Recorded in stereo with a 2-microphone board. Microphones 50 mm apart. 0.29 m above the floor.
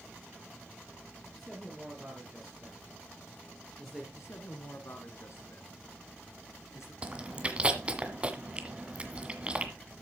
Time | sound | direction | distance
1.3 | a man speaking | 5° left (ahead or behind) | 5 m
4.2 | a man speaking | 75° left (ahead or behind) | 3 m
7.0 | chewing | 20° right (ahead or behind) | 1.7 m